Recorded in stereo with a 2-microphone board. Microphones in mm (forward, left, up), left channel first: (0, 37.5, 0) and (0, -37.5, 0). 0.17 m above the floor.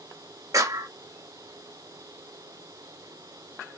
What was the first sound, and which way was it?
A clap, 50° right (ahead or behind).